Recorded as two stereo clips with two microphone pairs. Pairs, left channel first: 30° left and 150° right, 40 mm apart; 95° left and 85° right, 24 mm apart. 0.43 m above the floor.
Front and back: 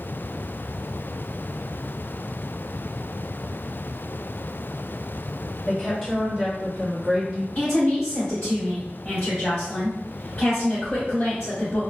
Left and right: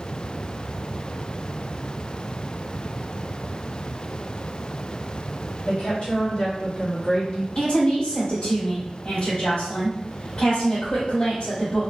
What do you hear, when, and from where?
5.7 s a woman speaking: 90° left, 1.3 m; by 7.5 s 155° left, 1.0 m
7.5 s a woman speaking: 70° left, 1.8 m